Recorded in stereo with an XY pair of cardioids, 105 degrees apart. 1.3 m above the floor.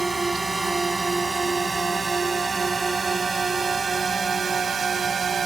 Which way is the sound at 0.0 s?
15° right.